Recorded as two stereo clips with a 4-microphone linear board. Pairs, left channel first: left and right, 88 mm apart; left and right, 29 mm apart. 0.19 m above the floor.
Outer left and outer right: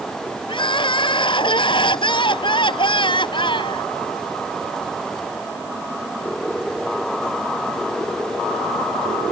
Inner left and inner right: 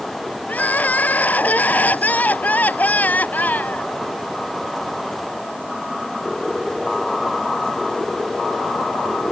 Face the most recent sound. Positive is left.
turn(degrees=60)  # may be behind; listen again after turning